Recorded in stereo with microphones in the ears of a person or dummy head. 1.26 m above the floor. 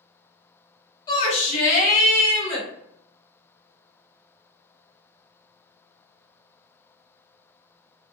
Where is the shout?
25° left (ahead or behind), 0.6 m; by 2.7 s 45° left (ahead or behind), 1.5 m.